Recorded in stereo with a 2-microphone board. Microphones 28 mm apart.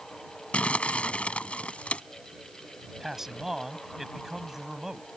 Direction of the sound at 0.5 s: 50° left (ahead or behind).